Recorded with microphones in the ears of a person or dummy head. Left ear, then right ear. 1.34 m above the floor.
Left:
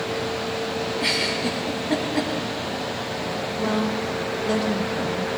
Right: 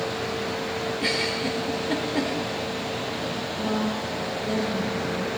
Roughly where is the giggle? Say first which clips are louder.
Left 3 dB; centre.